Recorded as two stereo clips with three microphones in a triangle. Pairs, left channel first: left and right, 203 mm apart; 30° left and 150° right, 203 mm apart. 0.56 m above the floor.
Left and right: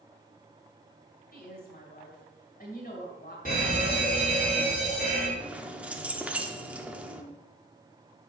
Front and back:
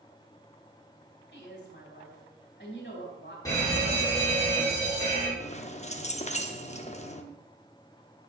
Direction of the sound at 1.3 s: 50° left.